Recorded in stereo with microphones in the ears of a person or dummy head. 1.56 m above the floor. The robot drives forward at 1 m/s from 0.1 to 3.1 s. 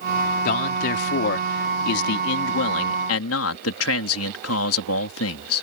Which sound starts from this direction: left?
A man speaking, at 0.5 s.